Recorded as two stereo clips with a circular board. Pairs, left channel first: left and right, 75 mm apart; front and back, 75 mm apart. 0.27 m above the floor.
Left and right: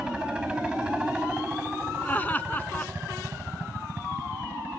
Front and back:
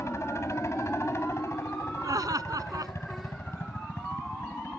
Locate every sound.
0.0 s a helicopter: 15° right; by 4.8 s 40° right
2.0 s laughter: 155° left